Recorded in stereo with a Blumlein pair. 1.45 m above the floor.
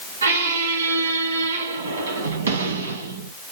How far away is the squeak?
About 1.3 m.